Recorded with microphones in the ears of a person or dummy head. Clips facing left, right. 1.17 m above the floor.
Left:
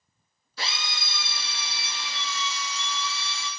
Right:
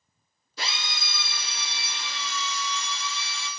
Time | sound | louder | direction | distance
0.6 | a drill | even | 25° right (ahead or behind) | 7 m